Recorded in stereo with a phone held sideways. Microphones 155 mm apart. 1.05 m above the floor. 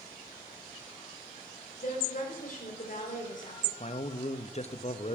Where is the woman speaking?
60° left (ahead or behind), 3.5 m.